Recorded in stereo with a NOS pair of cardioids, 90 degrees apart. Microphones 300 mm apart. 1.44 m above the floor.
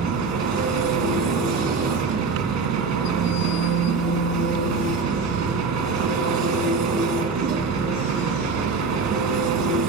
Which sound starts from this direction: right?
An engine running, at 0.0 s.